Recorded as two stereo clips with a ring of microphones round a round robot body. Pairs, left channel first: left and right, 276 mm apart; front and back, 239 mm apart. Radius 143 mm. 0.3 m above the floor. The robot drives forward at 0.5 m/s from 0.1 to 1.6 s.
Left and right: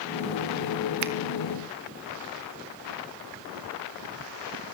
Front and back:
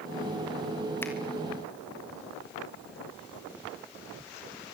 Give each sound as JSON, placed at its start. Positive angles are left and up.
{"t": 1.0, "sound": "a finger snap", "azimuth_deg": -80, "distance_m": 1.9}